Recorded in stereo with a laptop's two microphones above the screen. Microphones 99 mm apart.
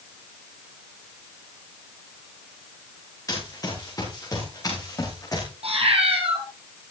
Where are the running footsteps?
35° left (ahead or behind), 6.5 m.